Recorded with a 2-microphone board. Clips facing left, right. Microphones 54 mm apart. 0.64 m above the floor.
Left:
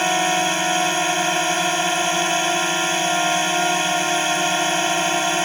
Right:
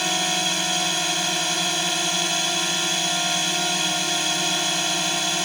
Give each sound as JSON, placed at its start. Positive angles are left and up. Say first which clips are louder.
{"t": 0.0, "sound": "a drone", "louder": "left 6 dB", "side_deg": 30}